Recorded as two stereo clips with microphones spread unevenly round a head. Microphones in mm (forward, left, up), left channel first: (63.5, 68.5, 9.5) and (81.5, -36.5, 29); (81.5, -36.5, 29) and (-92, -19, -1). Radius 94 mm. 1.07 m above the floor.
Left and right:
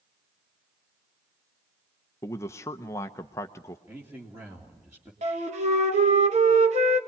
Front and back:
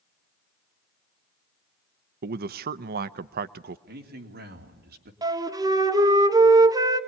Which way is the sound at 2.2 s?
160° left.